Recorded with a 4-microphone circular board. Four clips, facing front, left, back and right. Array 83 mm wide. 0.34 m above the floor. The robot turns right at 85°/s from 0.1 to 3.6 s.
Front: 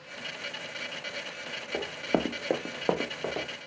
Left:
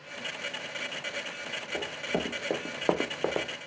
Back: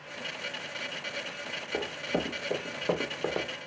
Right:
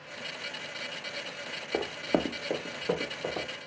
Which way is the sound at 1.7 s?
85° right.